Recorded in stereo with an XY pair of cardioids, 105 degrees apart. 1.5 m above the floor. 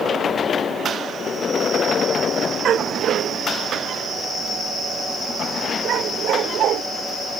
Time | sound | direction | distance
2.6 | a dog barking | 60° right | ?